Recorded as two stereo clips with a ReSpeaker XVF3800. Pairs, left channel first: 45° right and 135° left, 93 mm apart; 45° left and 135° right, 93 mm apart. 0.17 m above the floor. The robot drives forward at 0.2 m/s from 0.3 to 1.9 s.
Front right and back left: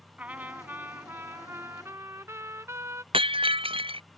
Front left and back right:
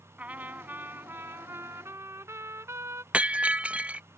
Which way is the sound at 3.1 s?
150° left.